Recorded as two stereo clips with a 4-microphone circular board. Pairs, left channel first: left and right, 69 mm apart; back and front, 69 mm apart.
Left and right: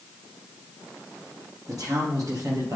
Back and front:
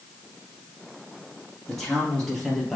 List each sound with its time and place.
1.7 s a man speaking: 95° right, 3.5 m